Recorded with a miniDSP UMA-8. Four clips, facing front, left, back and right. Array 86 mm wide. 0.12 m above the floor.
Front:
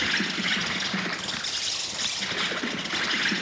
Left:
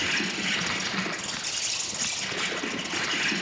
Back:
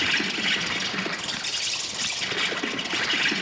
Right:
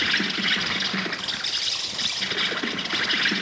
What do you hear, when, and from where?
0.0 s an insect: 85° right, 1.5 m